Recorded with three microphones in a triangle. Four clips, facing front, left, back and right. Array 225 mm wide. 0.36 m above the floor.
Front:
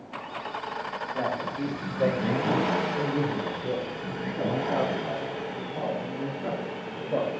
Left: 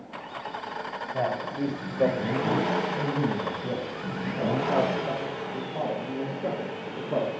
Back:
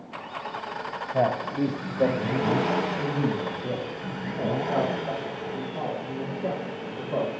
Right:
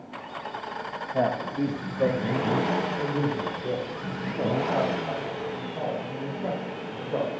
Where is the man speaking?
165° right, 1.4 m; by 7.3 s 75° left, 7 m.